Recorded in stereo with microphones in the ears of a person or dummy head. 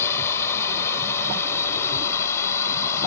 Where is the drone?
15° left (ahead or behind).